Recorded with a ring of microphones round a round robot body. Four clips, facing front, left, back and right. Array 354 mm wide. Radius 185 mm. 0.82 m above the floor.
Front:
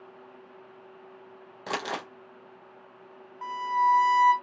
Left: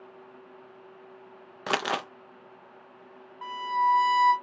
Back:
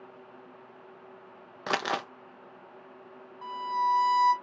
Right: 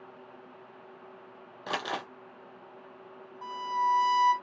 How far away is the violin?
About 0.5 m.